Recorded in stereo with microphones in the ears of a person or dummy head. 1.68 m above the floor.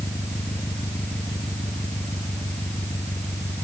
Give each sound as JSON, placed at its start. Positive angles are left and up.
{"t": 0.0, "sound": "an engine running", "side_deg": 5}